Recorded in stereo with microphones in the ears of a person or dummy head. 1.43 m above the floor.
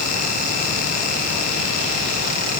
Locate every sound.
Only background noise.